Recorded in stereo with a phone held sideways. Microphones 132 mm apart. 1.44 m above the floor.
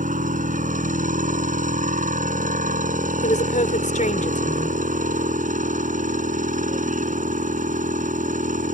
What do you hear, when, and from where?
0.0 s a machine running: 85° right
3.2 s a woman speaking: 75° left (ahead or behind)